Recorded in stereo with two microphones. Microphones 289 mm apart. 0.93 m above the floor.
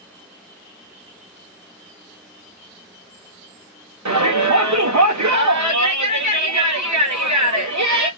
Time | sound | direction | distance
4.0 | a shout | 70° right (ahead or behind) | 0.8 m